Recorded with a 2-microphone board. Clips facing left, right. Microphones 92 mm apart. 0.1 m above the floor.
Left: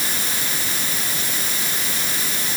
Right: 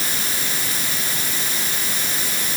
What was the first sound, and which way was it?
Only background noise.